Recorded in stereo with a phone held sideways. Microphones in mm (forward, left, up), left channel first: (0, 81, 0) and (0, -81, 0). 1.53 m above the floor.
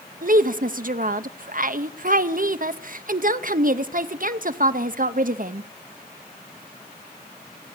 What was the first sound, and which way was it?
A woman speaking, 60° right (ahead or behind).